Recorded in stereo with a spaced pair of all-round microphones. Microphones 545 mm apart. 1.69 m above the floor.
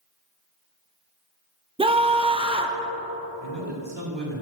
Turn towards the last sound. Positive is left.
turn(degrees=-50)  # may be behind; listen again after turning